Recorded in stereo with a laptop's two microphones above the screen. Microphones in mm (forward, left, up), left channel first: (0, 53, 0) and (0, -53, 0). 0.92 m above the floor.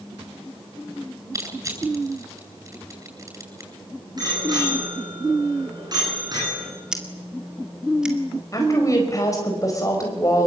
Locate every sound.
1.3 s crushing: 30° right (ahead or behind), 8.5 m
4.2 s a bicycle bell: 40° right (ahead or behind), 7.5 m
6.9 s scissors: 10° right (ahead or behind), 2 m
8.5 s a woman speaking: 30° left (ahead or behind), 4.5 m